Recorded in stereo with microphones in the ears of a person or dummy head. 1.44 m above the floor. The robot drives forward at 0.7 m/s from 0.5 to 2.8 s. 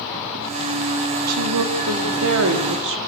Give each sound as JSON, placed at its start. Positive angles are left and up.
{"t": 1.3, "sound": "a woman speaking", "side_deg": -85, "distance_m": 3.5}